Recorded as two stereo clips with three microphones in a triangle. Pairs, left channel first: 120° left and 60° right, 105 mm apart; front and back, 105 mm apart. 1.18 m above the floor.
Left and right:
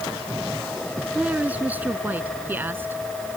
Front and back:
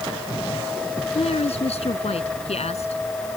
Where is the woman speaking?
15° left; by 3.0 s 10° left.